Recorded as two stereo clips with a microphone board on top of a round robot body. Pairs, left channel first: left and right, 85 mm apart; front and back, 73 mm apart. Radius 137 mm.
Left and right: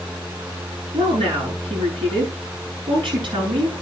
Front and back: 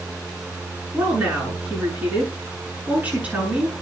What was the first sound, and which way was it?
A woman speaking, 110° right.